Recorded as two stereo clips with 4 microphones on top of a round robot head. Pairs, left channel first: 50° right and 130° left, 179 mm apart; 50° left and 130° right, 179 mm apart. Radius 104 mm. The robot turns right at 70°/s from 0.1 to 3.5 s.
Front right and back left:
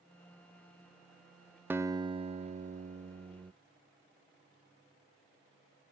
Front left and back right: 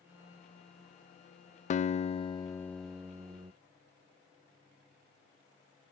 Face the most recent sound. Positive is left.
turn(degrees=-175)